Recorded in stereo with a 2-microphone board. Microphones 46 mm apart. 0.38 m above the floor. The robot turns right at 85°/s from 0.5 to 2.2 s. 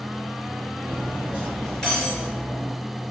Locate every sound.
0.8 s cutlery clinking: 70° right, 3.5 m; by 2.7 s 45° left, 3.5 m